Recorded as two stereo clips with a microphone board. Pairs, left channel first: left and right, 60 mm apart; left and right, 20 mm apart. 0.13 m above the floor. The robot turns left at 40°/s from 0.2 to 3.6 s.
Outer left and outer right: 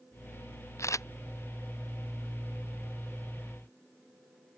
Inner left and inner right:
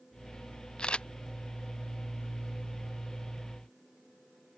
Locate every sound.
0.8 s a camera shutter: 50° left (ahead or behind); by 1.1 s 60° left (ahead or behind)